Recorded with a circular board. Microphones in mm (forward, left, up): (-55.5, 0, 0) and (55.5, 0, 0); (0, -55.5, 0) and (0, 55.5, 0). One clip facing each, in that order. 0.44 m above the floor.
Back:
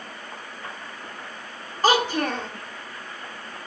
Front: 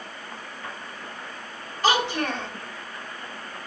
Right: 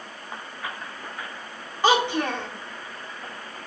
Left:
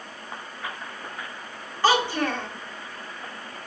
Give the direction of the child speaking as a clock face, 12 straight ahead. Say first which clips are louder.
Back 2 dB, right 1 dB; 5 o'clock.